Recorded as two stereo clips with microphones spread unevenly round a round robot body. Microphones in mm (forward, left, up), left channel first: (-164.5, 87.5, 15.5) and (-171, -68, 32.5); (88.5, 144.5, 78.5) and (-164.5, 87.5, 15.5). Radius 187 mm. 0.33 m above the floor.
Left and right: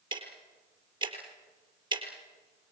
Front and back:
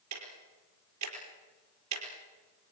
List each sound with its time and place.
0.1 s ticking: 150° right, 5 m